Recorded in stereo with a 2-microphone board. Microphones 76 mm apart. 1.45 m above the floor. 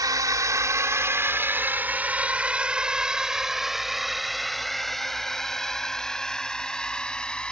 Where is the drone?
55° right (ahead or behind); by 7.5 s 15° left (ahead or behind).